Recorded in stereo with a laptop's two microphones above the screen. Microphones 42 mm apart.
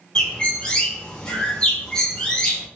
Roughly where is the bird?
Centre.